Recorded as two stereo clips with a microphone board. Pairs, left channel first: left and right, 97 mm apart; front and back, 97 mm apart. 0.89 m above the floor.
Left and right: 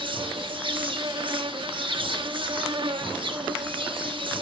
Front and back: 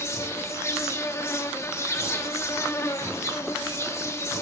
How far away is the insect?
About 1.1 m.